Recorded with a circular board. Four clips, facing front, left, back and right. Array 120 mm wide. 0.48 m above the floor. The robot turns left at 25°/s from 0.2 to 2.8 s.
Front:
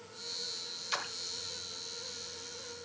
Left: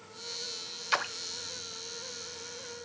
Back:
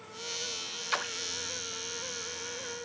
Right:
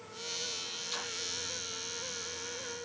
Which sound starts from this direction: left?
A splash, at 0.9 s.